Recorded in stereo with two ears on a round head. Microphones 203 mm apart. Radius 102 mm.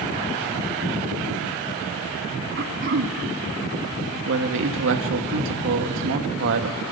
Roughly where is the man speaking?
Right.